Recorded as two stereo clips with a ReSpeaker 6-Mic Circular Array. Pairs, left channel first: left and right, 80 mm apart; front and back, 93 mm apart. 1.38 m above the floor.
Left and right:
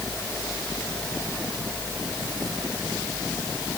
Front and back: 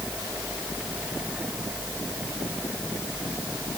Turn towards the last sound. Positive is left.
No sound to turn to.